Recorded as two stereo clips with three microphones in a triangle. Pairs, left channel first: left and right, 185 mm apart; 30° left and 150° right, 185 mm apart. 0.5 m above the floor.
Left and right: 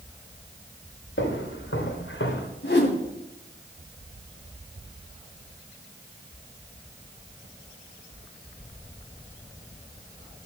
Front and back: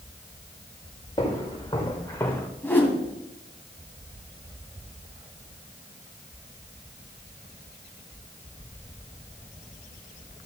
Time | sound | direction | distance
1.2 | footsteps | 95° left | 3.5 m
2.6 | a whoosh | 110° left | 2 m